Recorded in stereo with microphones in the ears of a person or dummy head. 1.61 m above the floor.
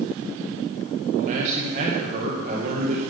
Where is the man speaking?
45° right (ahead or behind), 2 m.